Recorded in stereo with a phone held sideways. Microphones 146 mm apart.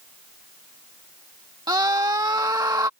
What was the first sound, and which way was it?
A scream, 25° right (ahead or behind).